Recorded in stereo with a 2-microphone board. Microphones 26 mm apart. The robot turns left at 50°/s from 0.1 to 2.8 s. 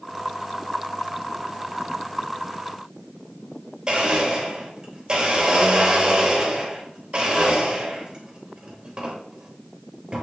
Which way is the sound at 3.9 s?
40° right (ahead or behind).